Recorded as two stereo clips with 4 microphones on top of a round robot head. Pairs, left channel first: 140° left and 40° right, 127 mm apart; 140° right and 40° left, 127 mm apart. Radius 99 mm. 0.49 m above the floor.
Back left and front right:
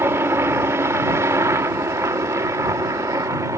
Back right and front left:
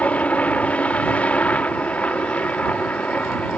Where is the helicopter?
75° right; by 3.6 s 70° right.